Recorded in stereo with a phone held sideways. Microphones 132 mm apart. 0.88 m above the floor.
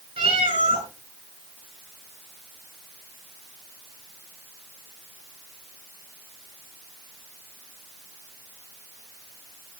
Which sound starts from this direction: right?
A cat meowing, at 0.2 s.